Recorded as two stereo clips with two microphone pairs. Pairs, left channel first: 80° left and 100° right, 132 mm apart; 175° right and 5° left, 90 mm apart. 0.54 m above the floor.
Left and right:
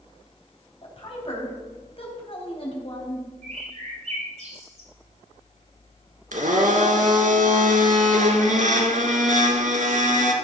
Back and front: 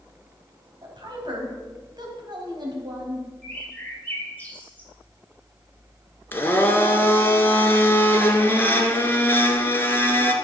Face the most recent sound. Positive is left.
turn(degrees=-110)